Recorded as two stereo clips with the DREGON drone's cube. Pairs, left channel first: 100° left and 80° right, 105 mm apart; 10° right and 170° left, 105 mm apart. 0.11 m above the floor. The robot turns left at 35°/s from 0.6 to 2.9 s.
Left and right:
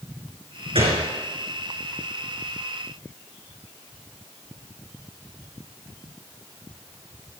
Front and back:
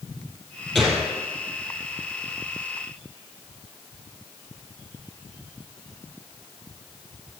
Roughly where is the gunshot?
Right.